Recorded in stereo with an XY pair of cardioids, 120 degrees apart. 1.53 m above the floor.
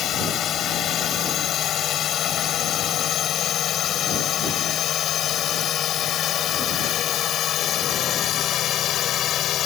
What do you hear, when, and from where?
0.0 s a drone: 55° left; by 9.7 s 60° left